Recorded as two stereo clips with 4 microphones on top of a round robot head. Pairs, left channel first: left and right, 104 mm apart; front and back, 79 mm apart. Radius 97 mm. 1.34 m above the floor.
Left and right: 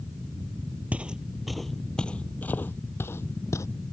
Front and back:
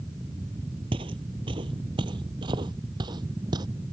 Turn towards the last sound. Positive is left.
turn(degrees=150)